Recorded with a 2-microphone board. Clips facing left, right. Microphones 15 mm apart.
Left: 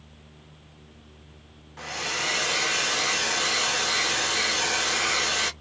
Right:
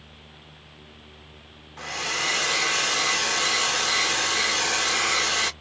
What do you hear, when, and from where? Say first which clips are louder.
1.8 s a hair dryer: right 2 dB; 10° right (ahead or behind), 0.6 m